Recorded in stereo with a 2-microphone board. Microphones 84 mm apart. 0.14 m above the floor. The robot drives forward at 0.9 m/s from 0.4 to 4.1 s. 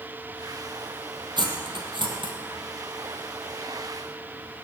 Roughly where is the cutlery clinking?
Right.